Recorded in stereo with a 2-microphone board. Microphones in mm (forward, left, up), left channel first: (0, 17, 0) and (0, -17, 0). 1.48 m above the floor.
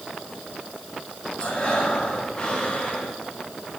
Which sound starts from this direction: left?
Breathing, at 1.4 s.